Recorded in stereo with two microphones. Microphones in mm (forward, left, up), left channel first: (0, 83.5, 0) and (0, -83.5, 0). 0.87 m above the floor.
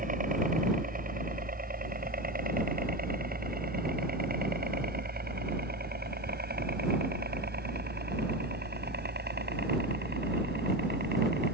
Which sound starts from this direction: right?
A helicopter, at 0.0 s.